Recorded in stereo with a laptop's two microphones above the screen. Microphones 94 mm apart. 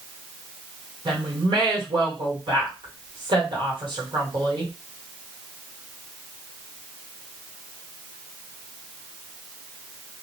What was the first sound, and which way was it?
A woman speaking, 60° right (ahead or behind).